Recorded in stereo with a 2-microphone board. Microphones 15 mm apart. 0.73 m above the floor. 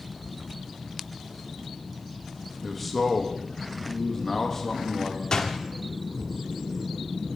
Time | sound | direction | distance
2.6 | a man speaking | centre (ahead or behind) | 1.1 m
5.3 | a door slam | 55° left (ahead or behind) | 1.0 m